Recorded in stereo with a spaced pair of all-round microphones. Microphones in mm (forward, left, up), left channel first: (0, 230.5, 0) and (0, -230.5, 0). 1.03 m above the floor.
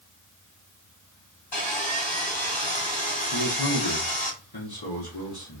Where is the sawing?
70° left (ahead or behind), 1.7 m.